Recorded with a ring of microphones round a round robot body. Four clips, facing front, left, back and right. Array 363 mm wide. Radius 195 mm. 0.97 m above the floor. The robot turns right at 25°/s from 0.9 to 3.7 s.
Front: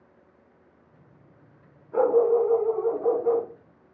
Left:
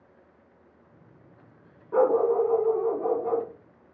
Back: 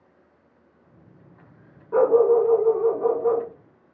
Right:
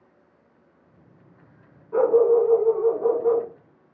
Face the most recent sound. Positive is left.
turn(degrees=-155)